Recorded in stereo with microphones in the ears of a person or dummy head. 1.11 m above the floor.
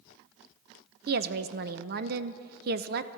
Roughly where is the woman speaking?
Right.